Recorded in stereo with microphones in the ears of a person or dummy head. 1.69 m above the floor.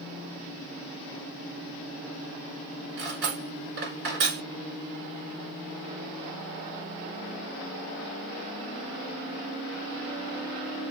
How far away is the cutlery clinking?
About 1.5 m.